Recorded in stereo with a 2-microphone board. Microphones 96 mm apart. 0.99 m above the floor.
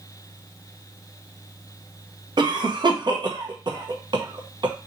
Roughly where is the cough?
Right.